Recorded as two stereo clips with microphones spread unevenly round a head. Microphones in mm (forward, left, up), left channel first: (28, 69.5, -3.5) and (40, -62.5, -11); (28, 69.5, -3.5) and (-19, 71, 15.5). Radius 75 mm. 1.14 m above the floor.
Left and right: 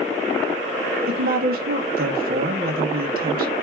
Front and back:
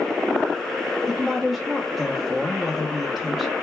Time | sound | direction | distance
1.1 | a woman speaking | 85° right | 1.2 m